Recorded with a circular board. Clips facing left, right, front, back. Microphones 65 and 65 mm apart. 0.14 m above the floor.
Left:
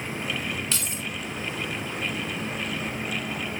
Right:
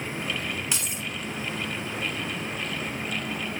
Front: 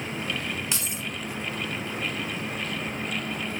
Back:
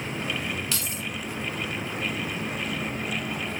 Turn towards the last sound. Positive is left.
turn(degrees=-35)